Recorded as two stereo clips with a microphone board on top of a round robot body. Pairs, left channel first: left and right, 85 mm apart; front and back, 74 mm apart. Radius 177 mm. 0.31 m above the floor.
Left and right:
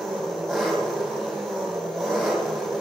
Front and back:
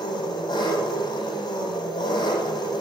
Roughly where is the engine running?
Ahead.